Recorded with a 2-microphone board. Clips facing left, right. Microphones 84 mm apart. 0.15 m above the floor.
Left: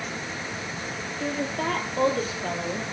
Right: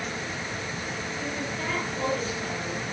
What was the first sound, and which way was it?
A woman speaking, 55° left (ahead or behind).